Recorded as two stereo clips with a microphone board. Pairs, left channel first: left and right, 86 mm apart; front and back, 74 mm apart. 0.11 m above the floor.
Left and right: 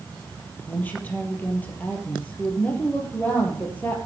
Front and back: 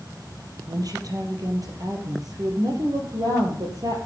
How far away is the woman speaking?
About 3 m.